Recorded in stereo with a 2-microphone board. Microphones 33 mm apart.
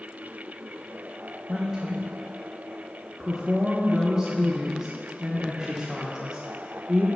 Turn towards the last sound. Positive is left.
turn(degrees=-20)  # may be behind; listen again after turning